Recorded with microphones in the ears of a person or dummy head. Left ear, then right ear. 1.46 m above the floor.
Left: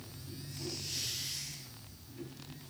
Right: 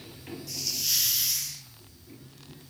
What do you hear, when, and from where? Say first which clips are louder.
0.5 s a hiss: right 13 dB; 75° right (ahead or behind), 0.7 m